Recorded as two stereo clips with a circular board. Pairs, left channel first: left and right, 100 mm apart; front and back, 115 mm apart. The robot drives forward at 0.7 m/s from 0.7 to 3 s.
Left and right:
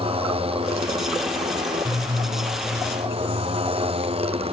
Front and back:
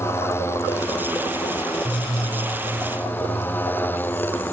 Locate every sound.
0.0 s a motorcycle: 70° right; by 4.5 s 75° right